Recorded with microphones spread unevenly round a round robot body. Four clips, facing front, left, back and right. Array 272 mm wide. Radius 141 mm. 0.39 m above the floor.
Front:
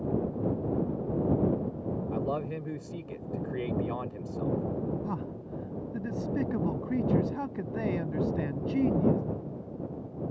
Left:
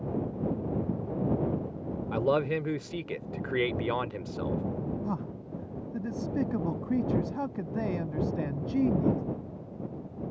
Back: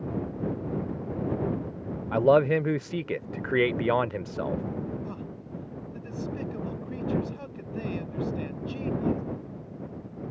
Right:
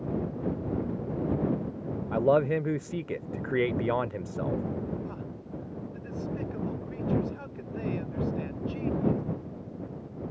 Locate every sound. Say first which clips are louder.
2.1 s a man speaking: right 3 dB, back 15 dB; 175° left
5.0 s a man speaking: left 4 dB, front 3 dB; 60° left